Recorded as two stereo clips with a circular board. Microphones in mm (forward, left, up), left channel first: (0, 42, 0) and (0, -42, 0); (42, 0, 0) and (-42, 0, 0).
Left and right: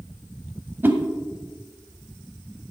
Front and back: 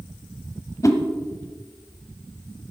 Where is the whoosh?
30° right, 1.2 m.